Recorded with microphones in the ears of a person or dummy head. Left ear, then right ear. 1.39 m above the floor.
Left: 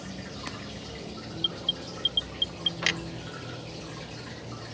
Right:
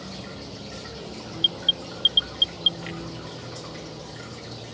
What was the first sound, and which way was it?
A vehicle, 65° right (ahead or behind).